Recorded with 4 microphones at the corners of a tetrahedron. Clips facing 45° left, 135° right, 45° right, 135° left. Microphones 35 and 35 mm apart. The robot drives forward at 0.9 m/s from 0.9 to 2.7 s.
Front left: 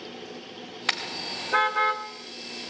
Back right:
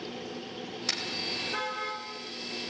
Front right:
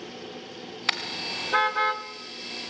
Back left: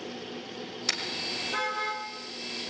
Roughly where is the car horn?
Ahead.